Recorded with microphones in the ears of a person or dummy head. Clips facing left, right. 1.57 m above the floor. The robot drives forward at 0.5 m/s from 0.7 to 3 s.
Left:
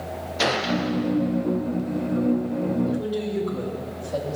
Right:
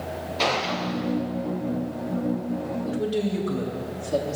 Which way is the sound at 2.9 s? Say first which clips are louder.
Even; 40° right (ahead or behind).